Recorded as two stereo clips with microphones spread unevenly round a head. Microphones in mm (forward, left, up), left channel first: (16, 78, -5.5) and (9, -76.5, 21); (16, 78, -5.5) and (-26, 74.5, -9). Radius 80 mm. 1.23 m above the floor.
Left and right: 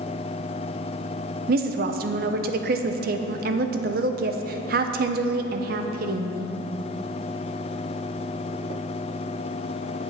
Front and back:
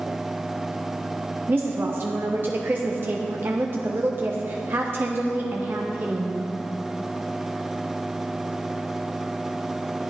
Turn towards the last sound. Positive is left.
turn(degrees=-125)